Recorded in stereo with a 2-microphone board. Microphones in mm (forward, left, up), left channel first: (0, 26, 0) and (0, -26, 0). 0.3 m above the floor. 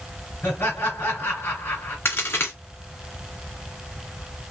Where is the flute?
I don't hear a flute.